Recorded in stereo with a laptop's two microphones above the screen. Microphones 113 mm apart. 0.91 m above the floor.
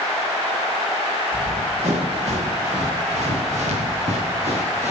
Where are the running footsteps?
70° right (ahead or behind), 6 m.